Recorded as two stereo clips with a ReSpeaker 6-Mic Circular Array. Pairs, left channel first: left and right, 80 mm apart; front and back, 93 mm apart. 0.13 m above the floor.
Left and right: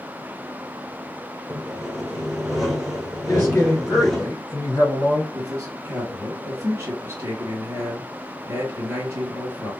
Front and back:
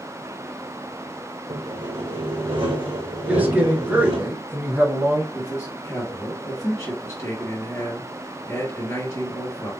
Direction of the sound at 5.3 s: 50° right.